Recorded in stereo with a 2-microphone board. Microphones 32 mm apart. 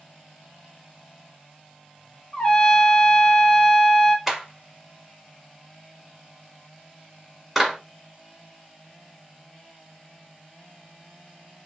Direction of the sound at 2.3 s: 25° left (ahead or behind).